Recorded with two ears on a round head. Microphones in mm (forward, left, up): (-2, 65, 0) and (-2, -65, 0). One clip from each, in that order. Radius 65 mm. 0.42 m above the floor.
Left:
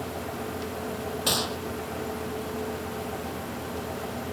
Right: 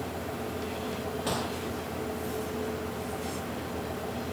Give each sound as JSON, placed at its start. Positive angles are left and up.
{"t": 1.3, "sound": "a gunshot", "side_deg": 65}